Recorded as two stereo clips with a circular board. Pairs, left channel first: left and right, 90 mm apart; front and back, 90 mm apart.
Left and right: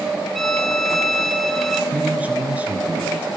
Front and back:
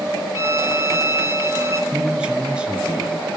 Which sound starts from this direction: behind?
A violin, at 0.3 s.